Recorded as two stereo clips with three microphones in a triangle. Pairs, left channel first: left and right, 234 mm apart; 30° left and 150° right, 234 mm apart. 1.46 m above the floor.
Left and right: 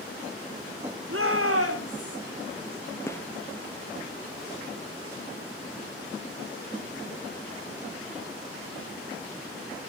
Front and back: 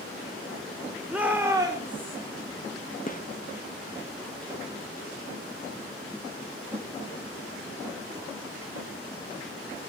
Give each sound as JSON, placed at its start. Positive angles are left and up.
{"t": 1.1, "sound": "a shout", "azimuth_deg": -65, "distance_m": 4.0}
{"t": 3.1, "sound": "a gunshot", "azimuth_deg": 20, "distance_m": 0.8}